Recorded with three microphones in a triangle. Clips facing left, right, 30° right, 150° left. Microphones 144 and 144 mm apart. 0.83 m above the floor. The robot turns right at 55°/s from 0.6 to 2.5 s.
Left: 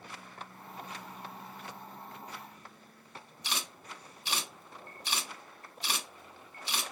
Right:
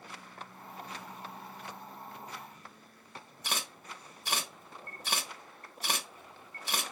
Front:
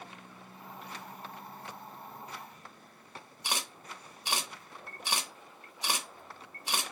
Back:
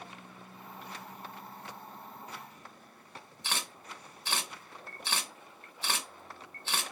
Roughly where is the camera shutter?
Right.